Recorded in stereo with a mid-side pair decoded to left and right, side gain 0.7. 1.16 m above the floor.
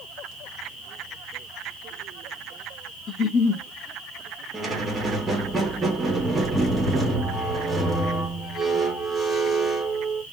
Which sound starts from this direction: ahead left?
A giggle, at 3.1 s.